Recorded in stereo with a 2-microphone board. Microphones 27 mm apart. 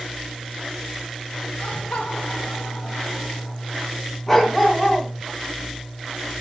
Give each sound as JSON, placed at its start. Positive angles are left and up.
{"t": 1.6, "sound": "laughter", "side_deg": 70, "distance_m": 1.8}
{"t": 4.3, "sound": "a dog barking", "side_deg": 15, "distance_m": 2.0}